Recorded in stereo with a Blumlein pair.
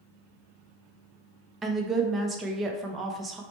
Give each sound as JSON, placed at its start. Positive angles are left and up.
{"t": 1.6, "sound": "a woman speaking", "azimuth_deg": -15, "distance_m": 0.7}